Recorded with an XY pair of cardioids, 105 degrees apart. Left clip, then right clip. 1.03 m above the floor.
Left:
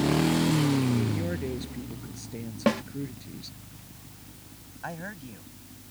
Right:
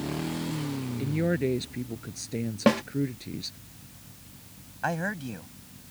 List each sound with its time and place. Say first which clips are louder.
1.0 s a man speaking: right 4 dB; 45° right
2.7 s a snare drum: right 3 dB; 20° right
4.8 s a man speaking: right 8 dB; 50° right